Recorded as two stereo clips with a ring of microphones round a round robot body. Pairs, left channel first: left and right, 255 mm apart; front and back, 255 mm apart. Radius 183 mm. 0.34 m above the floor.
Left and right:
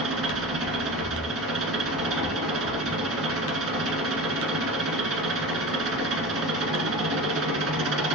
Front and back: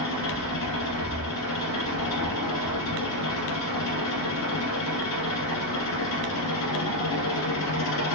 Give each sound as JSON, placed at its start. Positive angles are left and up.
{"t": 0.0, "sound": "an engine running", "azimuth_deg": -50, "distance_m": 1.5}